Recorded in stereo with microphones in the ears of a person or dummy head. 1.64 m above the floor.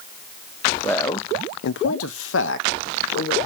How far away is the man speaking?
About 0.7 m.